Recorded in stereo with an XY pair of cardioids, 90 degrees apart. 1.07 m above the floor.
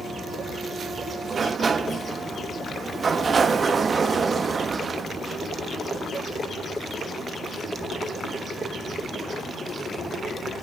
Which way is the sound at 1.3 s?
45° right.